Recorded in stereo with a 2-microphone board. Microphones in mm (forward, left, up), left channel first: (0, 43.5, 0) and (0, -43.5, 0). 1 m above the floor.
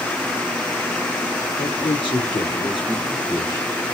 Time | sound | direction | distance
1.6 | a man speaking | 75° left (ahead or behind) | 2.5 m